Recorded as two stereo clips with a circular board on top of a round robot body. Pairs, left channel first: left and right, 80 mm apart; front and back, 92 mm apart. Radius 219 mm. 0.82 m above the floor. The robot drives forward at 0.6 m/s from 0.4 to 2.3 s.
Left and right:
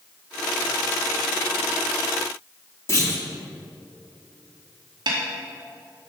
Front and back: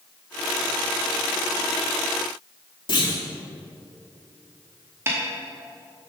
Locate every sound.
2.9 s a clunk: 40° left, 2 m
5.1 s a snare drum: 115° right, 1.1 m